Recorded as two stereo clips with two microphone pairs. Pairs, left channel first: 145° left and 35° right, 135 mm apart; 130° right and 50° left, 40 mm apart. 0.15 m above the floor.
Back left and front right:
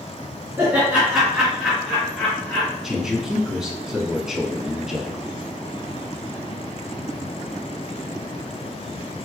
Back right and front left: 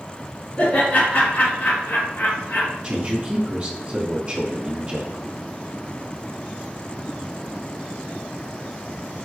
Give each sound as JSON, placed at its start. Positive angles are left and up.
{"t": 0.6, "sound": "laughter", "azimuth_deg": -100, "distance_m": 1.9}
{"t": 2.8, "sound": "a man speaking", "azimuth_deg": 45, "distance_m": 1.1}